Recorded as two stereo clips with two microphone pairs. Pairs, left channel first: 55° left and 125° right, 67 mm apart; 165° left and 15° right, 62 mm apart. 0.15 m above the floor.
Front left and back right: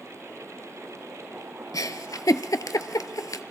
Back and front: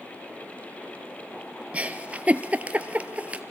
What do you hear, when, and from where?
1.7 s a giggle: 50° left, 0.8 m